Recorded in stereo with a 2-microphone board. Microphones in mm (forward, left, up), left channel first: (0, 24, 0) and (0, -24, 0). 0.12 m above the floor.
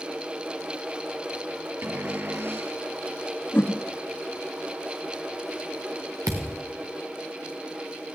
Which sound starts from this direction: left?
A whoosh, at 3.5 s.